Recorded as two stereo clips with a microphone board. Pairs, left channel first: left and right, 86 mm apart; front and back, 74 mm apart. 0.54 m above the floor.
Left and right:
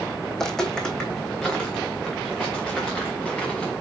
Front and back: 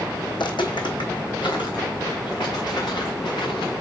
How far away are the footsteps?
About 1.8 m.